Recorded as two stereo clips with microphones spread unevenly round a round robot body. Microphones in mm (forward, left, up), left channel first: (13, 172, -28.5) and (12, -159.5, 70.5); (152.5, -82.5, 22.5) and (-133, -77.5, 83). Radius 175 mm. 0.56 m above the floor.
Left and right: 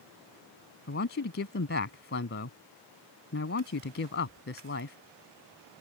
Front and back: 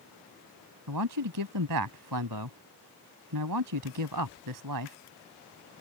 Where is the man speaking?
150° left.